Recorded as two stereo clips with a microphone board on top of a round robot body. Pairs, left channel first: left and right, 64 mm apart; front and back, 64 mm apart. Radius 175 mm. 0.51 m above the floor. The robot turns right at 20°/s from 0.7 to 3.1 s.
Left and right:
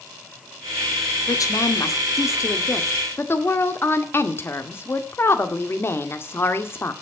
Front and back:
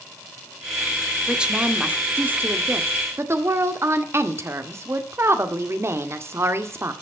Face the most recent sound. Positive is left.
turn(degrees=140)